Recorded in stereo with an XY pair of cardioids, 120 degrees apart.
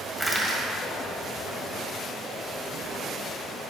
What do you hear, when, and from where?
0.2 s crushing: 5° right, 2 m